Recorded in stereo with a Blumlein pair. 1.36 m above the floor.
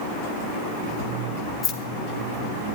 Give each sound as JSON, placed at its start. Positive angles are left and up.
{"t": 1.6, "sound": "keys jangling", "azimuth_deg": 30, "distance_m": 1.3}